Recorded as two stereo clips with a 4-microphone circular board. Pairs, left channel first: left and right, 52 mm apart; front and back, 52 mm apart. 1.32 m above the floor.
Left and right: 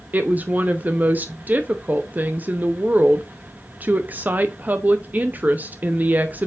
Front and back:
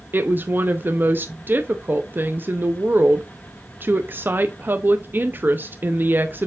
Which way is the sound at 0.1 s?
140° right.